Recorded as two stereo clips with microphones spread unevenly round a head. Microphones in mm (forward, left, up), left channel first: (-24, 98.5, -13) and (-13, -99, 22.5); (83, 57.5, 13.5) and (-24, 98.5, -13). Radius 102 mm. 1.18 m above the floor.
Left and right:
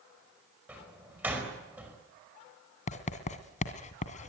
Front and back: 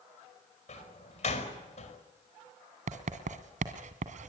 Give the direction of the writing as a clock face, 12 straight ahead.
7 o'clock.